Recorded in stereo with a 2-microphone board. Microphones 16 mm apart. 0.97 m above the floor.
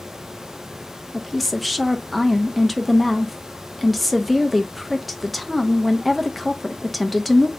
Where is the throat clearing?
No throat clearing in this recording.